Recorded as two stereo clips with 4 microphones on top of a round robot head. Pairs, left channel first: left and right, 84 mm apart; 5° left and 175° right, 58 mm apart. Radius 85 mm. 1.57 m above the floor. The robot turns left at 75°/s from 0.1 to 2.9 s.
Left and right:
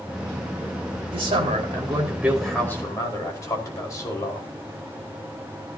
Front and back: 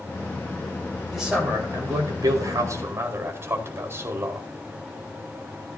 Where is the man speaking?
85° right, 5 m; by 4.5 s 145° left, 5 m.